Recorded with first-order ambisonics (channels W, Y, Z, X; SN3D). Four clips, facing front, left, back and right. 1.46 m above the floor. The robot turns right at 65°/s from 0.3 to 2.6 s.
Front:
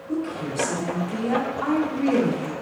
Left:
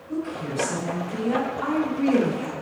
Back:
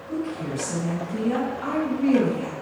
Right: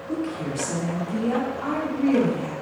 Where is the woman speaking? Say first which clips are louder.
Right 1 dB, front 1 dB; 80° right, 1.1 m; by 2.5 s 60° left, 1.1 m.